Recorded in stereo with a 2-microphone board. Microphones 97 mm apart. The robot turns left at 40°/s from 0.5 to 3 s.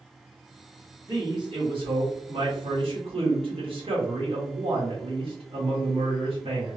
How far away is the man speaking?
About 1.4 m.